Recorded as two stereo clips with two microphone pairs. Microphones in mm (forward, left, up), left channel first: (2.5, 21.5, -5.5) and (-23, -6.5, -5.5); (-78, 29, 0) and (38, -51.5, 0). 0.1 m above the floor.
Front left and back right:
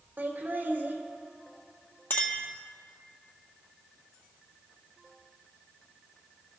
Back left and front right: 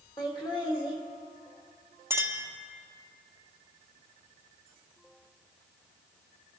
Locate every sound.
0.2 s laughter: 160° right, 3 m
2.1 s a clink: 35° left, 1.5 m